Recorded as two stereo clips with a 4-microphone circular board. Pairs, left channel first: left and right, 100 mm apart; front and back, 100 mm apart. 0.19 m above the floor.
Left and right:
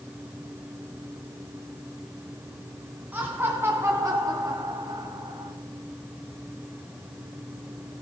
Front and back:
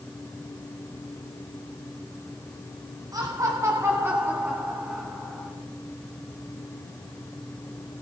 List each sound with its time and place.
3.1 s laughter: 155° right, 1.7 m; by 5.5 s 90° right, 1.9 m